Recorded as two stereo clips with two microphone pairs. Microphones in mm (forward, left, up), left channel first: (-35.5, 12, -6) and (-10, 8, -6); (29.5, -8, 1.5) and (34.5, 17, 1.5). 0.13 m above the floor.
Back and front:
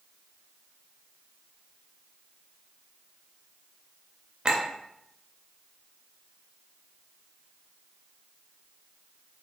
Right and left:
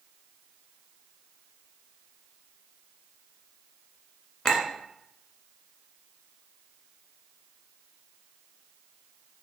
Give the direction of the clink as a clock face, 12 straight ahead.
2 o'clock.